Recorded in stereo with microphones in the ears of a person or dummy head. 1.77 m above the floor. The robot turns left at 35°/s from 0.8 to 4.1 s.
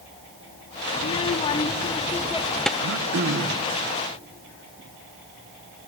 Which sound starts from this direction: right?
Throat clearing, at 2.8 s.